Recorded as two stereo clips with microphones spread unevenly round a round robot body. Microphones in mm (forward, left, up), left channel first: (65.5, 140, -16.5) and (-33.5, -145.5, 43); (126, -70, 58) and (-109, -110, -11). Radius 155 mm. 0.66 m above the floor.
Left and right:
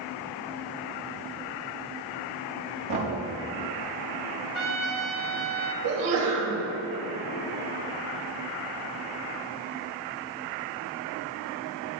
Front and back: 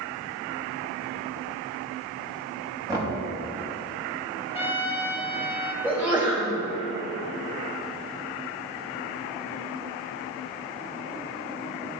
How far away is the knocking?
About 4 m.